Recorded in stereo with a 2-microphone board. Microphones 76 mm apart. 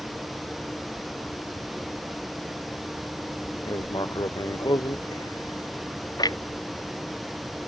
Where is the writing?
70° left (ahead or behind).